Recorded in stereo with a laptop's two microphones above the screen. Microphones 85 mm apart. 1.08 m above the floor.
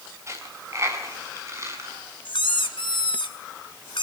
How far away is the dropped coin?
About 5.5 m.